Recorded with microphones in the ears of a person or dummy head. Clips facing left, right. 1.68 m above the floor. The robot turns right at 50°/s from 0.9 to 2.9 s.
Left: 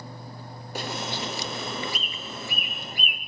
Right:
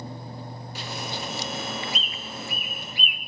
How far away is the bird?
About 1.0 m.